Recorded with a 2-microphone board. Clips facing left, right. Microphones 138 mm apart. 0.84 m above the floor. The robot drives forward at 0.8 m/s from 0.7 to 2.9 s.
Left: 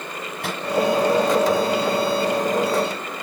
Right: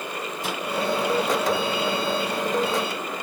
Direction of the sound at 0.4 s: 70° left (ahead or behind).